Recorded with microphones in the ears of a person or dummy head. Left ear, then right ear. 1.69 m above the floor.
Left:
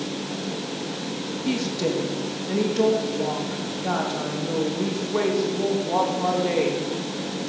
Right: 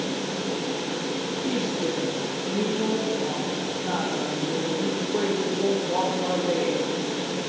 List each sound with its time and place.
1.4 s a woman speaking: 65° left (ahead or behind), 2.5 m